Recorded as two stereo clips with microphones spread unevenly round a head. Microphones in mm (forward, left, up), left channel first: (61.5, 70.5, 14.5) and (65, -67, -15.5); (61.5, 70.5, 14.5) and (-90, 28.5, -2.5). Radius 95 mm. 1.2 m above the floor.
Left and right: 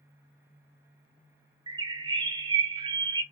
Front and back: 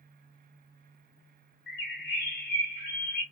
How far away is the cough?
I don't hear a cough.